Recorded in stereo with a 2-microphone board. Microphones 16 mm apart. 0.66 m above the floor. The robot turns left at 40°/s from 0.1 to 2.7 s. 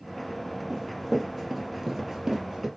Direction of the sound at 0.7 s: 20° right (ahead or behind).